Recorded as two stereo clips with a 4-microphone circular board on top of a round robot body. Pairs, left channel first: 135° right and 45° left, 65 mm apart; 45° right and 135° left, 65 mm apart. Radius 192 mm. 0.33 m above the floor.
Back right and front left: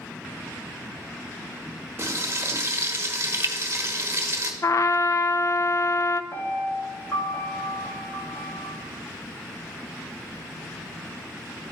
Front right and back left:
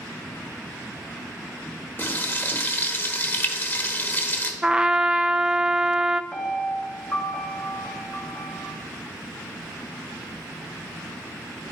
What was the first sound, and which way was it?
Frying, 5° left.